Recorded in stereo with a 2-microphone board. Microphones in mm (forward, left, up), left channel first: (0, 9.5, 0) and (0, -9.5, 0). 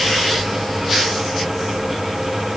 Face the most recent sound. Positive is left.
No sound to turn to.